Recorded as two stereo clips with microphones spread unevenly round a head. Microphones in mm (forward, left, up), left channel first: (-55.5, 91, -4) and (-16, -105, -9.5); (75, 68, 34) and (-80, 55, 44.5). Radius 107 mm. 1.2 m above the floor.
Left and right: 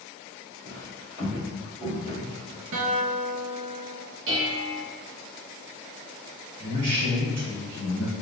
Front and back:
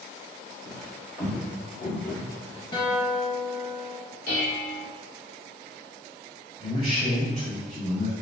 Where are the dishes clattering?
45° right, 0.7 m.